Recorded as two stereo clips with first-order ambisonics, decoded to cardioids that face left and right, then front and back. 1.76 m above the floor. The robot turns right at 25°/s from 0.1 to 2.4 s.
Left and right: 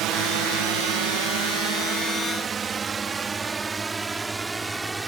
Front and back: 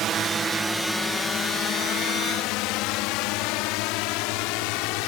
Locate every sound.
0.0 s a drone: 130° right; by 5.1 s 10° right